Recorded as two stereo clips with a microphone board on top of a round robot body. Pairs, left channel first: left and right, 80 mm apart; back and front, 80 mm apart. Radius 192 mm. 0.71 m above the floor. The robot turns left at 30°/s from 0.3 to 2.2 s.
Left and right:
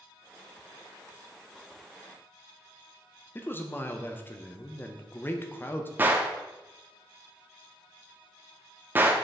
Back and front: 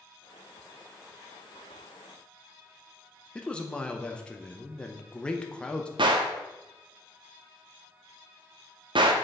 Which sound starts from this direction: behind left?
A man speaking, at 3.4 s.